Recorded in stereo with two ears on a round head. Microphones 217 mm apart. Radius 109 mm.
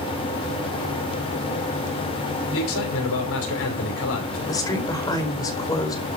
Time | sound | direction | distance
2.5 | a man speaking | 60° left (ahead or behind) | 6 m
4.5 | a woman speaking | 15° left (ahead or behind) | 4.5 m